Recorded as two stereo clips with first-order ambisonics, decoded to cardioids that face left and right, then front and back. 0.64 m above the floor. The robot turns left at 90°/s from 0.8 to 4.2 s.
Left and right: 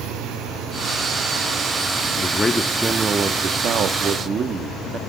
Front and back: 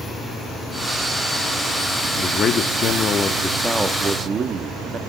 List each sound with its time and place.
2.2 s a man speaking: 50° left, 1.0 m; by 5.0 s 135° right, 1.0 m